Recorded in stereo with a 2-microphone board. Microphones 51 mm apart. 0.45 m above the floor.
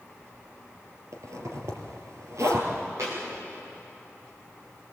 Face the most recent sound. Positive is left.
turn(degrees=-65)  # may be behind; listen again after turning